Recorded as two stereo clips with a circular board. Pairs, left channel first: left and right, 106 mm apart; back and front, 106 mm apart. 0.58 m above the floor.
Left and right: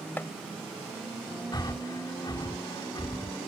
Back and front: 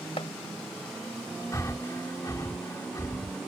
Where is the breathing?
125° left.